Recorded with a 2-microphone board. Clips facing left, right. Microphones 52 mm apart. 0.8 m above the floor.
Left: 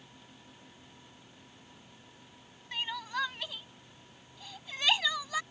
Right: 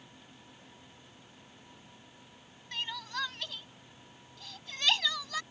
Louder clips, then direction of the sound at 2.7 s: Left 2 dB; 10° left (ahead or behind).